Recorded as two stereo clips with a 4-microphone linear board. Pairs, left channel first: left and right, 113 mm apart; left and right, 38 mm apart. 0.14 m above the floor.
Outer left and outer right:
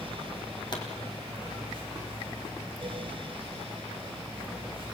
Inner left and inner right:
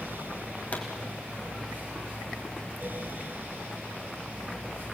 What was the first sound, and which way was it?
A pop, 40° left (ahead or behind).